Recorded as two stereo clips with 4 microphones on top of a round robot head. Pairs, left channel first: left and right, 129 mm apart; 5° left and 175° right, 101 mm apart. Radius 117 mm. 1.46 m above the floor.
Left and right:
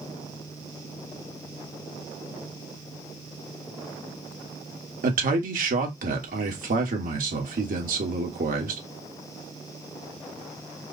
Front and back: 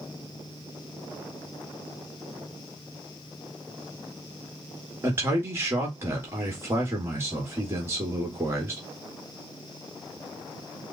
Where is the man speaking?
105° right, 1.3 m.